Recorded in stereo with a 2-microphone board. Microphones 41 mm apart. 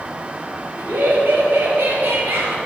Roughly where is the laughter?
Right.